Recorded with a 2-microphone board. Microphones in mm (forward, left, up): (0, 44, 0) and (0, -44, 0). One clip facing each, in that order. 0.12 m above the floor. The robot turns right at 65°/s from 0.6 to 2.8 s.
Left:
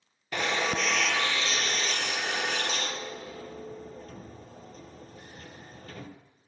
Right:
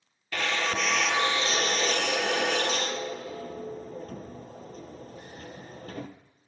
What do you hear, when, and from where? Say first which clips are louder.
0.3 s a drill: even; 20° left (ahead or behind), 1.0 m; by 6.1 s 50° right (ahead or behind), 1.0 m